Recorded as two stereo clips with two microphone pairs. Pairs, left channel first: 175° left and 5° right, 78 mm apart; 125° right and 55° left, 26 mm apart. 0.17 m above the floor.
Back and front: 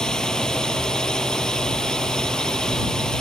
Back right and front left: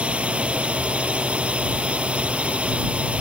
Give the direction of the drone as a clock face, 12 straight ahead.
9 o'clock.